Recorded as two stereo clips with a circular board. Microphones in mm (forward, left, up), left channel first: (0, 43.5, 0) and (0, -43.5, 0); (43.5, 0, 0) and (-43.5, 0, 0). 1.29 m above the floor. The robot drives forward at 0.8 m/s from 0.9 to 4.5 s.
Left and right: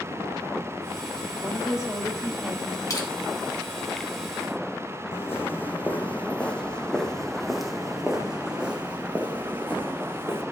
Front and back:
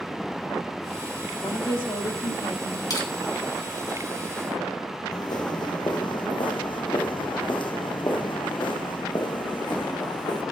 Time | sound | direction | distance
1.4 | a woman speaking | 5° right | 3 m
2.9 | crushing | 40° left | 4.5 m
5.1 | footsteps | 30° left | 3 m